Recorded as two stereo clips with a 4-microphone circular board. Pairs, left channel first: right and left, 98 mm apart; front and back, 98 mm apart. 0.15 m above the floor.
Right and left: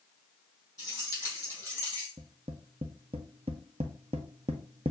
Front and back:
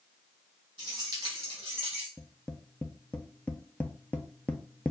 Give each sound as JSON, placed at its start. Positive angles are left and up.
{"t": 0.8, "sound": "keys jangling", "azimuth_deg": -145, "distance_m": 3.0}
{"t": 2.2, "sound": "tapping", "azimuth_deg": 75, "distance_m": 0.7}